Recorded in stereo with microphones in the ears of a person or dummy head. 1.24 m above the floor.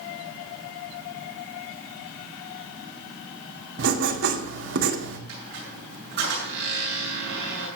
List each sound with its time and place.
3.8 s writing: 70° right (ahead or behind), 1.9 m
5.3 s a squeak: 55° right (ahead or behind), 7 m